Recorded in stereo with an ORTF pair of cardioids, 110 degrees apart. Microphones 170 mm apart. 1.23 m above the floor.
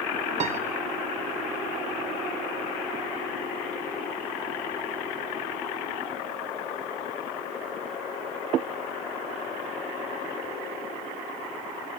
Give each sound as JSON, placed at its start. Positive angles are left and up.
{"t": 0.4, "sound": "a piano", "azimuth_deg": -40, "distance_m": 1.2}